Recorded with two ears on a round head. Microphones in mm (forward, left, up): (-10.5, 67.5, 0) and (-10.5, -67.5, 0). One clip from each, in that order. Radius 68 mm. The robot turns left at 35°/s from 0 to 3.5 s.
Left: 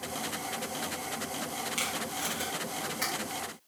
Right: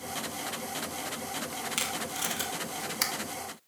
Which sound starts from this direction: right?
Tape being pulled, at 1.8 s.